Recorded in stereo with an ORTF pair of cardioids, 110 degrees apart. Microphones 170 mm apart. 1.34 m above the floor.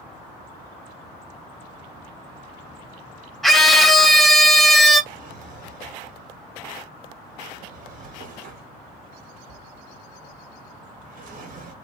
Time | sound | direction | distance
3.4 | a scream | straight ahead | 0.8 m
5.1 | a drawer | 55° right | 1.3 m